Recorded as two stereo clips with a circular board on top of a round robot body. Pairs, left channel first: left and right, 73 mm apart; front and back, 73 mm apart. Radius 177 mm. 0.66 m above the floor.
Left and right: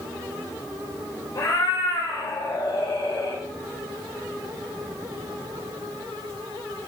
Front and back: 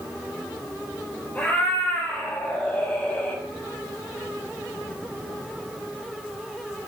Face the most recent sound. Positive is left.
turn(degrees=70)